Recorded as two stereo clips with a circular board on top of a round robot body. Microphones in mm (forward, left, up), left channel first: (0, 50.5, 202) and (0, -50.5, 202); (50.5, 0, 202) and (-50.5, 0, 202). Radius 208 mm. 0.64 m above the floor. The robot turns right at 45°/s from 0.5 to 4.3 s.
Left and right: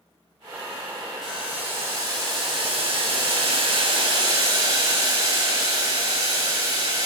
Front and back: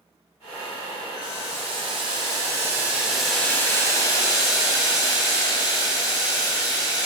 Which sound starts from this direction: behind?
Boiling, at 1.2 s.